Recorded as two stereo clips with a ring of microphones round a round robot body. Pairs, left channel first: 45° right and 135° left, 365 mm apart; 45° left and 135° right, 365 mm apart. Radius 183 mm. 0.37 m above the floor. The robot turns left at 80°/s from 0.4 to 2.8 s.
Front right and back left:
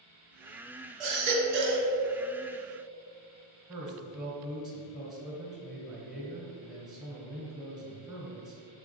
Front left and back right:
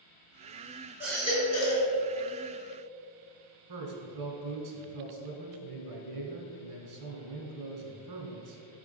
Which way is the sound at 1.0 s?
140° left.